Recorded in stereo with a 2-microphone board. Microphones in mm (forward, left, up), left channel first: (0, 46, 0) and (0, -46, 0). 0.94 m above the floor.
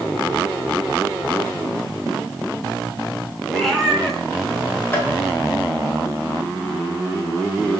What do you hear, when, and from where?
3.5 s a cat meowing: centre (ahead or behind), 2.5 m
4.9 s tapping: 20° left (ahead or behind), 2.5 m